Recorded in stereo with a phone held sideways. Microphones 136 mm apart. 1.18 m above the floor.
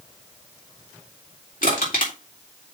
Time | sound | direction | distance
1.6 | crushing | 85° left | 3.5 m